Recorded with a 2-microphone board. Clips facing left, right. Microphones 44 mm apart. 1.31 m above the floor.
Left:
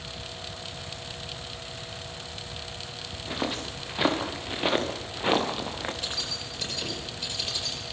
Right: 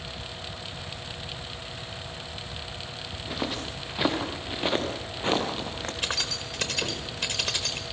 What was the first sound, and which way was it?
Footsteps, 5° left (ahead or behind).